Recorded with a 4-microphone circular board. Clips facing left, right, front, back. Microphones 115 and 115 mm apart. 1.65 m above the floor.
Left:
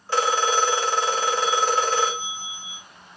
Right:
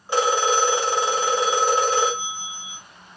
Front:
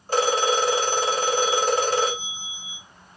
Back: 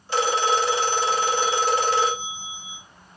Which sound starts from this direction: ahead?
A phone ringing, at 0.1 s.